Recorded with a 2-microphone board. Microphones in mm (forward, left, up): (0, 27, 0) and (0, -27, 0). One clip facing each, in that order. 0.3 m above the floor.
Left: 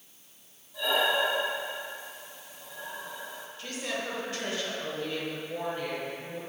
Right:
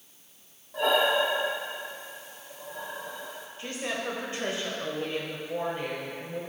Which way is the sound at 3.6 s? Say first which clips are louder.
Right 2 dB; 25° right (ahead or behind).